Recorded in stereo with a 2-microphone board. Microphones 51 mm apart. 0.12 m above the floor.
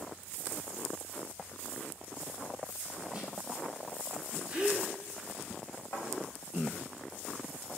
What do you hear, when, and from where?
3.1 s a snare drum: 15° right (ahead or behind), 1.9 m
4.5 s a gasp: 20° right (ahead or behind), 1.4 m
5.9 s a thud: 70° left (ahead or behind), 3 m